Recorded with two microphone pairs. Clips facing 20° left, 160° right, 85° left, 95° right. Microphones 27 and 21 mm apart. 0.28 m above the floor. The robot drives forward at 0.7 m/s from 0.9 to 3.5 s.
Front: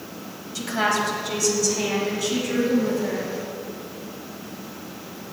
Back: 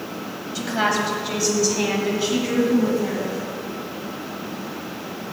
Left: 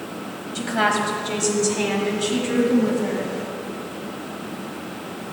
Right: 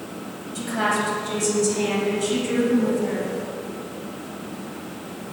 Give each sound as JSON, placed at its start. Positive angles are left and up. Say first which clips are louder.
{"t": 0.6, "sound": "a woman speaking", "louder": "back 1 dB, left 2 dB", "azimuth_deg": 125, "distance_m": 1.6}